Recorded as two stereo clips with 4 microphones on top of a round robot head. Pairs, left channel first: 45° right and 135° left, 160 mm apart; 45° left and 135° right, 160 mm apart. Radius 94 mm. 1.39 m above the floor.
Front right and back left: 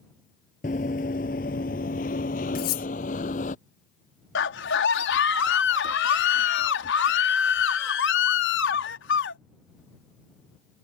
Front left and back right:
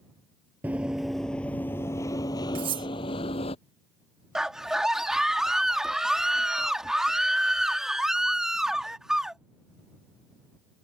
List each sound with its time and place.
0.6 s running footsteps: 55° right; by 3.5 s 5° right
2.5 s cutlery clinking: 75° right
4.3 s a scream: 45° right